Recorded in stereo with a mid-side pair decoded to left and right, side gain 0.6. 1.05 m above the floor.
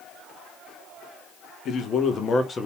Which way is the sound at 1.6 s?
50° left.